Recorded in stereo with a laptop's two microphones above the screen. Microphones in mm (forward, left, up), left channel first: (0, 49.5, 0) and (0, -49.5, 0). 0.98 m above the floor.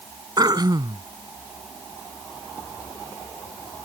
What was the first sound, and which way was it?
Throat clearing, 40° right (ahead or behind).